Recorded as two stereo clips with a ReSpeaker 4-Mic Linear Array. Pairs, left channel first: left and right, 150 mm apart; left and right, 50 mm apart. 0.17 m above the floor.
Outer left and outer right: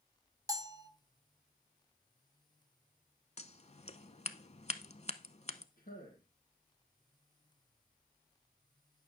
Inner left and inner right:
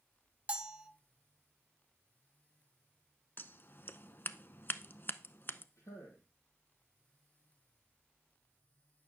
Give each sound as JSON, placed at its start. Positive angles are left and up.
{"t": 0.5, "sound": "a bell", "side_deg": -25, "distance_m": 0.6}
{"t": 3.4, "sound": "scissors", "side_deg": 45, "distance_m": 0.5}
{"t": 5.8, "sound": "a man speaking", "side_deg": 70, "distance_m": 4.0}